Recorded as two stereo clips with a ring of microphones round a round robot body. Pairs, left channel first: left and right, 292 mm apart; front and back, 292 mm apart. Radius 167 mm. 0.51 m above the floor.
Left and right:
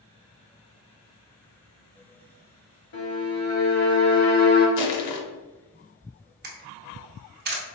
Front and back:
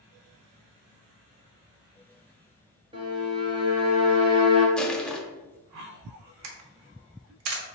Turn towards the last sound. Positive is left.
turn(degrees=-145)